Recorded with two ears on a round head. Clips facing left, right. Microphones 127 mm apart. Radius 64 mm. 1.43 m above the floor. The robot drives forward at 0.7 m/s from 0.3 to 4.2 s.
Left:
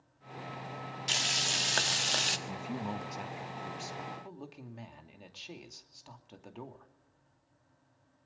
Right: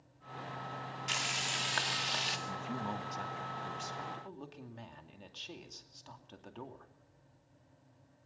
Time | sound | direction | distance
1.1 | frying | 40° left (ahead or behind) | 2 m
2.5 | a man speaking | 15° left (ahead or behind) | 1.2 m